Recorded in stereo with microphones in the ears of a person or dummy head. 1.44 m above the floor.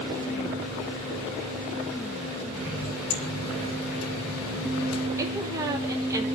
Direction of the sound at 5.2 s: 15° right (ahead or behind).